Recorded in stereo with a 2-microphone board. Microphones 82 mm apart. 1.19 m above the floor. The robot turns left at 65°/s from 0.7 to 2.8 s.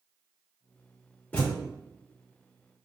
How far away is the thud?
About 0.9 m.